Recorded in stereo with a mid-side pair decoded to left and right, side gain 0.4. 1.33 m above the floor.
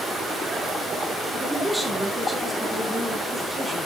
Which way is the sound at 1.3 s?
Straight ahead.